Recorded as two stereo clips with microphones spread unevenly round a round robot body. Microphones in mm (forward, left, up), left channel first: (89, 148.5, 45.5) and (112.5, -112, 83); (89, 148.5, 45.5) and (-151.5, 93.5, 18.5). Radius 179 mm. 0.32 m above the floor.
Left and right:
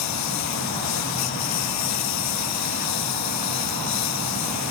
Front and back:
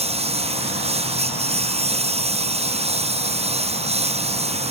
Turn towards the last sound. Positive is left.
turn(degrees=130)